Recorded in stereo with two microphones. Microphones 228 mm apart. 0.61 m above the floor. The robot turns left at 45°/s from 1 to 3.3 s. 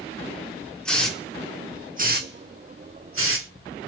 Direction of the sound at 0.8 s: 5° left (ahead or behind).